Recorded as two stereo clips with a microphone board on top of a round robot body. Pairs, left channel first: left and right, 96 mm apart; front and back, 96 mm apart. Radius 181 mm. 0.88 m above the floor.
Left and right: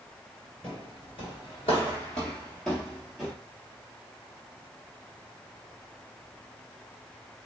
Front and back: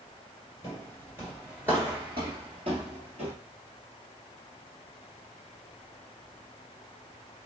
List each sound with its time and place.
0.6 s footsteps: 50° left, 1.0 m; by 3.3 s 175° right, 1.4 m